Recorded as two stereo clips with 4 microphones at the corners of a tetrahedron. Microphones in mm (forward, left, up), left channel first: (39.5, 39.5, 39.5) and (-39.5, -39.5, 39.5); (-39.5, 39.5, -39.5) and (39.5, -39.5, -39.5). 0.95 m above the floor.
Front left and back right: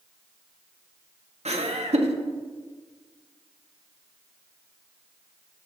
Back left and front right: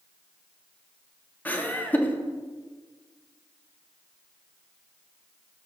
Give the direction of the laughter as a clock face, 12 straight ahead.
5 o'clock.